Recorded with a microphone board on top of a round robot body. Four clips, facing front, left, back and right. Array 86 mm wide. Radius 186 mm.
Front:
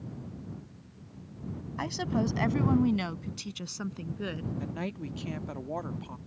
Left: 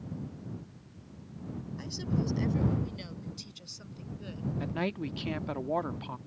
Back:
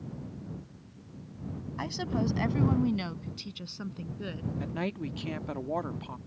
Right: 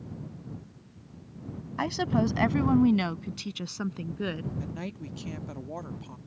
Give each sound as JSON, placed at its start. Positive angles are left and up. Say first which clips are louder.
{"t": 1.8, "sound": "a woman speaking", "louder": "right 8 dB, front 1 dB", "azimuth_deg": -85}
{"t": 4.6, "sound": "a man speaking", "louder": "left 4 dB, back 2 dB", "azimuth_deg": 110}